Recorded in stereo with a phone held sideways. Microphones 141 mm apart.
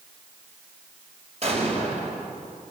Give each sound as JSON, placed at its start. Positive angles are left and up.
{"t": 1.4, "sound": "an explosion", "side_deg": -50, "distance_m": 4.5}